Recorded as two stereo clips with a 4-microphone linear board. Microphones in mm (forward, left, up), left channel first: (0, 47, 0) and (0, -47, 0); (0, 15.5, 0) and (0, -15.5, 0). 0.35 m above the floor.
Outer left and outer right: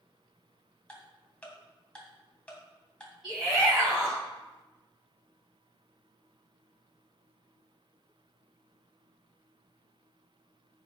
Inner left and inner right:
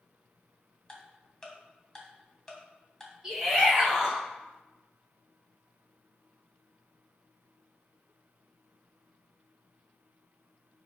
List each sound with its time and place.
0.9 s ticking: 15° left (ahead or behind), 2.5 m
3.2 s a shout: 10° right (ahead or behind), 2.5 m